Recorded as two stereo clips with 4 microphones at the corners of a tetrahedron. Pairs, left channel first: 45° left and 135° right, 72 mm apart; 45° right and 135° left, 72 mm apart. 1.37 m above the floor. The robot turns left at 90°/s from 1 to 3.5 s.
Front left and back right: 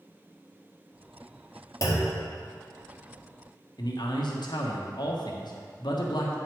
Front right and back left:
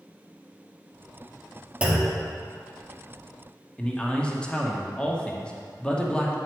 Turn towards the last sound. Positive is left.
turn(degrees=30)